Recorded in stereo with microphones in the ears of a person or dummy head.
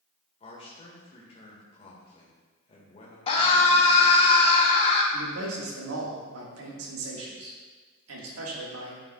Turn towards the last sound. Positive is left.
turn(degrees=-85)